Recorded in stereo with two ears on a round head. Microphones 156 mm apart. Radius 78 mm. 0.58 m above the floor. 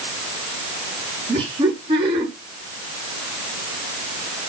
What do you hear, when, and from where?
1.3 s laughter: 30° right (ahead or behind), 7 m